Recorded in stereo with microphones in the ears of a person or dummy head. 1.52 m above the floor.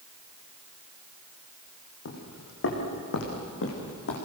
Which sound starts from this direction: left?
Footsteps, at 2.0 s.